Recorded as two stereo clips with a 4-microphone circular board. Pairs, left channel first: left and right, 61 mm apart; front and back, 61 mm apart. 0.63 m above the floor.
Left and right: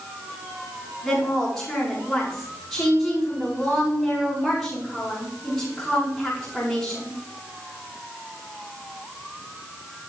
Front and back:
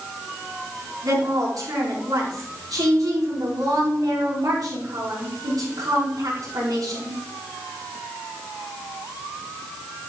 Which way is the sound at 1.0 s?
170° left.